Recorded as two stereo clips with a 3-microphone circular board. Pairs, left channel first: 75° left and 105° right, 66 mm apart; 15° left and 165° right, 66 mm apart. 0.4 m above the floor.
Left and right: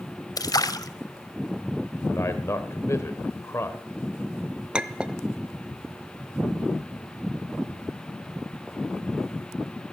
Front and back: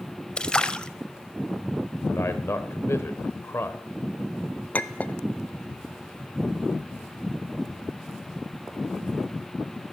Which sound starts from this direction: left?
A splash, at 0.4 s.